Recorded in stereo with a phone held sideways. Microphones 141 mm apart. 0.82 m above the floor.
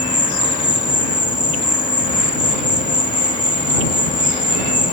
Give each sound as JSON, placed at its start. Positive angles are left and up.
{"t": 0.0, "sound": "an insect", "side_deg": 65}